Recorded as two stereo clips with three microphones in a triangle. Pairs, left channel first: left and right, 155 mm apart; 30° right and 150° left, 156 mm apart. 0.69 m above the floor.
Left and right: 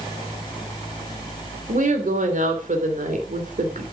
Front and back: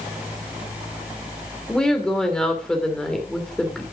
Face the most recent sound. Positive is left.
turn(degrees=-115)